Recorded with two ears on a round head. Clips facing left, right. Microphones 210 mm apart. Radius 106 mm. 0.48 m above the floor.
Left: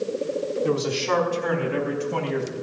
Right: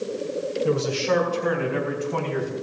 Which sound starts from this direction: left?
A man speaking, at 0.6 s.